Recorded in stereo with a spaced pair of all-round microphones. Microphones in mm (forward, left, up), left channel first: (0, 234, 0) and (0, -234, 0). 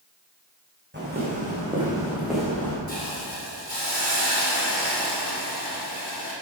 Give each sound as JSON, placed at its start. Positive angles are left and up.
{"t": 0.9, "sound": "footsteps", "side_deg": -20, "distance_m": 4.5}
{"t": 2.9, "sound": "a hiss", "side_deg": -60, "distance_m": 4.0}